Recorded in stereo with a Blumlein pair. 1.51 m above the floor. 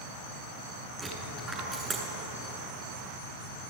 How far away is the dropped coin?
About 8.5 m.